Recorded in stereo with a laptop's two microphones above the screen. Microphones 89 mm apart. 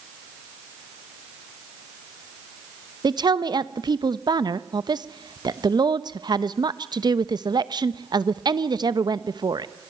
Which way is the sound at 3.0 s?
50° right (ahead or behind).